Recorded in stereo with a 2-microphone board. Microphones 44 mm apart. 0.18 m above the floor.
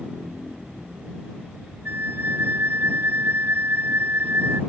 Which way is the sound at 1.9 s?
60° right (ahead or behind).